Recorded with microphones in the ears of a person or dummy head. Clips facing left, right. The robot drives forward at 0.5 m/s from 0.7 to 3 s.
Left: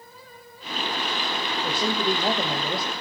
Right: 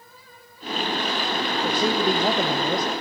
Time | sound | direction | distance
1.6 | a man speaking | 10° right (ahead or behind) | 1.7 m